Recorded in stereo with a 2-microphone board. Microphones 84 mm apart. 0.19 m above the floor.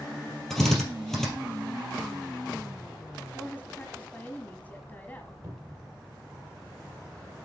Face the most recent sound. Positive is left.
turn(degrees=-35)  # may be behind; listen again after turning